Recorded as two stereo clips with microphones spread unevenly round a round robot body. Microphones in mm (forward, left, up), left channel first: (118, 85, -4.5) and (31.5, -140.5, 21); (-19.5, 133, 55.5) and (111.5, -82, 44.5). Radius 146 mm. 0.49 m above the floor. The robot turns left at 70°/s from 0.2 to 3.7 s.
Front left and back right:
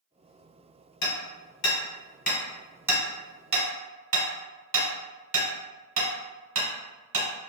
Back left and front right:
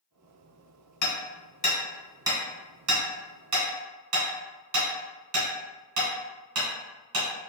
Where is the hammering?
100° left, 1.4 m; by 7.3 s 85° right, 1.4 m.